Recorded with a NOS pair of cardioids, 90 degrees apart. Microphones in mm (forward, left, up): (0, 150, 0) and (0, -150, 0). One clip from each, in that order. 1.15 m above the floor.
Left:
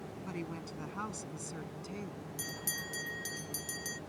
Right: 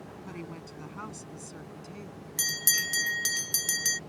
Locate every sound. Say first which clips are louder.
0.2 s a woman speaking: left 1 dB; 5° left; by 2.2 s 20° left
2.4 s a bell: right 13 dB; 55° right